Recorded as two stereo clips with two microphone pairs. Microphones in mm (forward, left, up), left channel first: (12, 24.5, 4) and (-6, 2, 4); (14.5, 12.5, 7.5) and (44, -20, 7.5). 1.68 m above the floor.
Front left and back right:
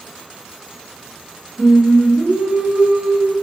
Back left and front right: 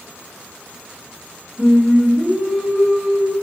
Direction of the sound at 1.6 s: 125° right.